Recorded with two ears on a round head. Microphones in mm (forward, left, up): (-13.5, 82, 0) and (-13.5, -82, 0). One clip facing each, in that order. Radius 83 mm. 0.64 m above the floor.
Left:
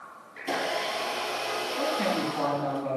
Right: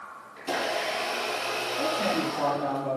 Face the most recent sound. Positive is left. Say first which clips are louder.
# even
turn(degrees=65)  # may be behind; listen again after turning